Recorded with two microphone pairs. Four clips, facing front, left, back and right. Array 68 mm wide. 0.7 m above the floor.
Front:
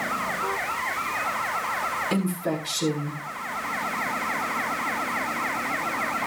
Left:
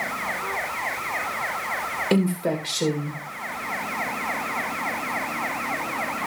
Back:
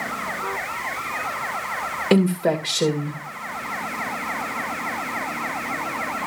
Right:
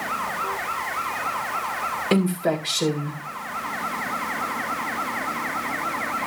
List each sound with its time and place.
2.1 s a woman speaking: 175° right, 2.5 m